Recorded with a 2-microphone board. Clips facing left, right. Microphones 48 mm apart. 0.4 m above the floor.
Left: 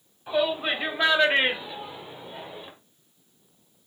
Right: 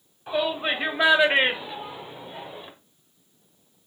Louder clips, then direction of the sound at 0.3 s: Even; 10° right (ahead or behind).